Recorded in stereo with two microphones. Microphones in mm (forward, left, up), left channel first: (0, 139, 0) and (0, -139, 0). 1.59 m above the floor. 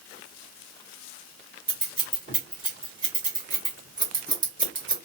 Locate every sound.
1.7 s scissors: 30° right (ahead or behind), 1.4 m